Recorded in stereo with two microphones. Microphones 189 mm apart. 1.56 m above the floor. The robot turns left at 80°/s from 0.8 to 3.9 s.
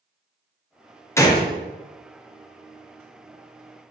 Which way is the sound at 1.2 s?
15° left (ahead or behind).